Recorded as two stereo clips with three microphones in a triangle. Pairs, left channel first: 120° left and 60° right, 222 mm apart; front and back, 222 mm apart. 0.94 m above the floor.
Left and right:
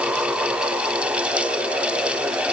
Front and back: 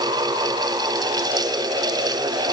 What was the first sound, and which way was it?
Only background noise.